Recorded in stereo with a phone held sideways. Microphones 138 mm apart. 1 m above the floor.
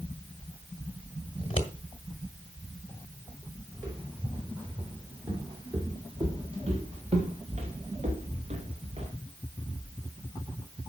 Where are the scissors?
40° left (ahead or behind), 1.5 m.